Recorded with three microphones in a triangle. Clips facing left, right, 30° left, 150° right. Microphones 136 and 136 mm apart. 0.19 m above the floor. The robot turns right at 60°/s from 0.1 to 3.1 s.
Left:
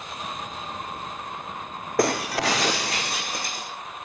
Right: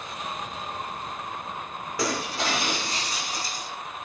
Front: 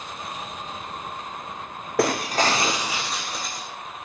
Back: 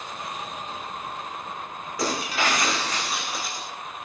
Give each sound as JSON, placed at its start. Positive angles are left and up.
{"t": 2.0, "sound": "breaking glass", "azimuth_deg": 55, "distance_m": 2.5}